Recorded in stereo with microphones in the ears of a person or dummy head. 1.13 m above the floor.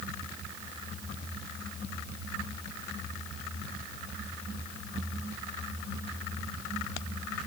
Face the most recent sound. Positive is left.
No sound to turn to.